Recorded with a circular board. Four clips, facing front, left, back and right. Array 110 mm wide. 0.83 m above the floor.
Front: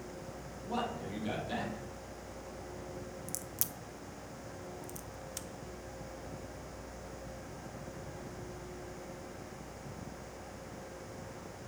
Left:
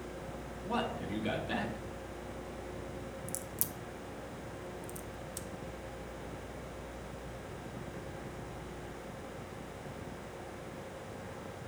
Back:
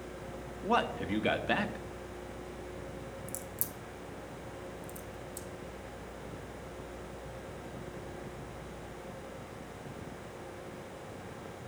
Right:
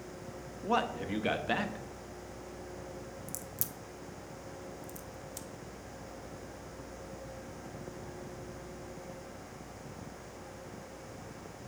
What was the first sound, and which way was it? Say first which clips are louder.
A man speaking: right 4 dB, back 7 dB; 150° right.